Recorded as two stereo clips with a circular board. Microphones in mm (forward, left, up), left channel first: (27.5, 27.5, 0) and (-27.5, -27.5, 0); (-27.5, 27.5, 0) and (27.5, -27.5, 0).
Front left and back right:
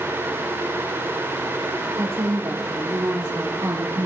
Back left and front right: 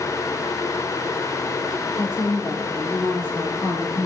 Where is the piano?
No piano in this recording.